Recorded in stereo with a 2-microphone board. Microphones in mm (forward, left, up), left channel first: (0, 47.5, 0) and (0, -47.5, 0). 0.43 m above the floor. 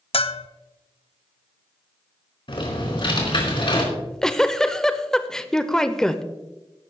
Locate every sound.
0.1 s a bell: 65° left (ahead or behind), 0.5 m
2.5 s typing on a keyboard: 55° left (ahead or behind), 4 m
3.9 s a giggle: 5° left (ahead or behind), 0.7 m